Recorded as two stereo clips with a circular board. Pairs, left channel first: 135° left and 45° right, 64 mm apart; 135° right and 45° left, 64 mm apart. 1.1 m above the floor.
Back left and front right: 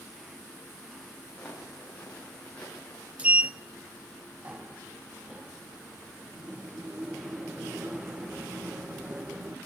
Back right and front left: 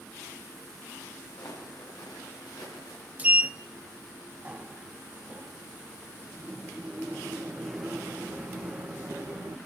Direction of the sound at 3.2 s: Straight ahead.